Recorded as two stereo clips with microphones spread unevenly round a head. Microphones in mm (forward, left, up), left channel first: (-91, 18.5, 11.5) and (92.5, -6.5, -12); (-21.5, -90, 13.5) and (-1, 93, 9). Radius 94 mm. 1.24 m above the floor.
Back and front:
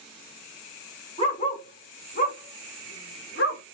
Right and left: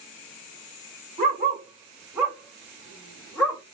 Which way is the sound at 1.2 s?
125° left.